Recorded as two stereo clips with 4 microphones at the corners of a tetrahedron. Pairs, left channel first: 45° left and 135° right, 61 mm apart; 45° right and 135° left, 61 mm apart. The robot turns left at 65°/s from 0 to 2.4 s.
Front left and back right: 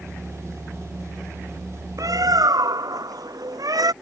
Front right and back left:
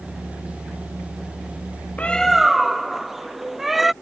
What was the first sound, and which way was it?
A bird, 110° right.